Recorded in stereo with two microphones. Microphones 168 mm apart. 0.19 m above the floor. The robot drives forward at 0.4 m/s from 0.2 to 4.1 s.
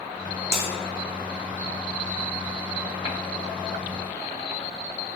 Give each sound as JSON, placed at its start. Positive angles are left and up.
{"t": 0.5, "sound": "a bell", "side_deg": -15, "distance_m": 2.5}